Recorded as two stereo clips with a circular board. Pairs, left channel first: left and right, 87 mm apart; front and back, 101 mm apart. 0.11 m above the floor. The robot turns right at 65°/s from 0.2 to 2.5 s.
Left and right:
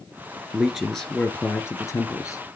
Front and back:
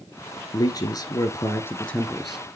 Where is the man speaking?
15° right, 1.9 m; by 2.4 s 110° left, 1.9 m.